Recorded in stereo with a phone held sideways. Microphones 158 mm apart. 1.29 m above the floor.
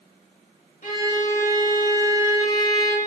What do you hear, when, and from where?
0.8 s a violin: 55° left (ahead or behind), 2.5 m